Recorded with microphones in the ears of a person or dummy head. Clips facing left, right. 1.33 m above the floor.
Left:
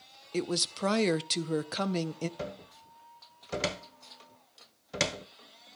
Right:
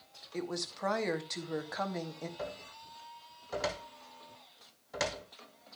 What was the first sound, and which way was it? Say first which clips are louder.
A woman speaking: left 6 dB; 45° left (ahead or behind).